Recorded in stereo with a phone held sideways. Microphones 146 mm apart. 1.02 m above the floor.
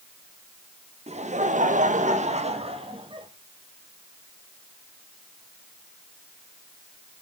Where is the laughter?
45° right (ahead or behind), 1.3 m; by 3.3 s 35° right (ahead or behind), 2 m.